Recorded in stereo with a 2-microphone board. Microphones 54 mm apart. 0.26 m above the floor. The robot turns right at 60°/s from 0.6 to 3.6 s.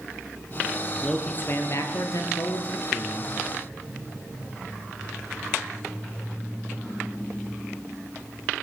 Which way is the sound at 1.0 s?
15° left.